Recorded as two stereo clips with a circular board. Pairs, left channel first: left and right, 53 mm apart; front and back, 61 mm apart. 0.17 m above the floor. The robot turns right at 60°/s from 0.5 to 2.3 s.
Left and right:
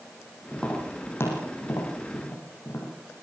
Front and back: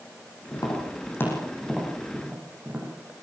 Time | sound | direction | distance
0.5 | tapping | 10° left | 7 m